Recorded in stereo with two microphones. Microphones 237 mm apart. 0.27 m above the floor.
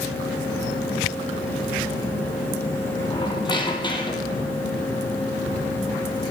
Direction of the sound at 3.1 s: 20° left (ahead or behind).